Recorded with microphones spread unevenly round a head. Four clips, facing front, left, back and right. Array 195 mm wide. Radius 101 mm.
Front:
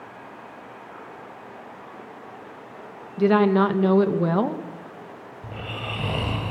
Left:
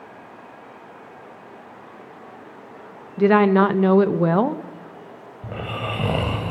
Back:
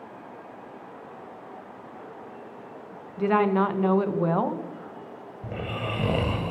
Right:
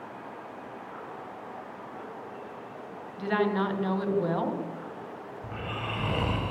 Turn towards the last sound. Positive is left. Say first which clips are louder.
# left 8 dB, back 3 dB
turn(degrees=120)